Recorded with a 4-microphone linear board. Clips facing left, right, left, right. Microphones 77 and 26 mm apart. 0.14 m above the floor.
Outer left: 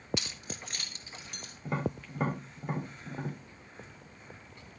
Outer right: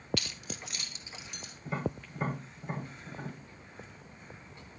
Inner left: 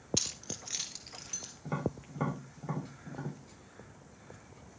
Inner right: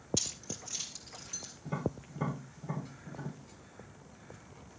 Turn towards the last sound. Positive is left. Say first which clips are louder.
# outer left 1 dB, inner left 1 dB
turn(degrees=55)  # may be behind; listen again after turning